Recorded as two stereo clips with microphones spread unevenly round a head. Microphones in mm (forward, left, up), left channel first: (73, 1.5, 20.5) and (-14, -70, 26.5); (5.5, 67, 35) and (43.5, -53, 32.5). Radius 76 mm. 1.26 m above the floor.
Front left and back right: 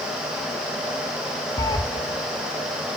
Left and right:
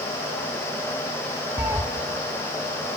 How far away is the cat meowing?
About 1.0 m.